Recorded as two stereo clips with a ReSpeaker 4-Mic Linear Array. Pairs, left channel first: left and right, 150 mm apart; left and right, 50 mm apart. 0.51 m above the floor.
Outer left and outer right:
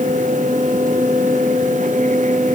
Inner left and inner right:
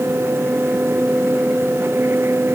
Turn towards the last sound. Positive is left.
No sound to turn to.